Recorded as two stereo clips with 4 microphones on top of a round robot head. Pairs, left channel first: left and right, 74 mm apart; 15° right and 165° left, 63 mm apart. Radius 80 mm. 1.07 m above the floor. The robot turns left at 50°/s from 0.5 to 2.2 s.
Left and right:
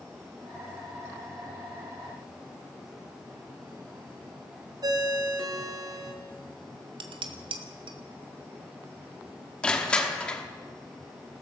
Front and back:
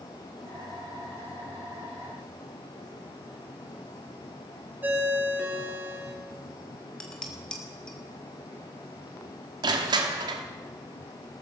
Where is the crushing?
170° left, 1.2 m.